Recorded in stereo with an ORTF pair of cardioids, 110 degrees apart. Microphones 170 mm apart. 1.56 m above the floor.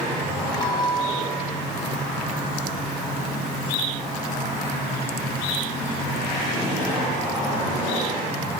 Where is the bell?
25° left, 2.0 m.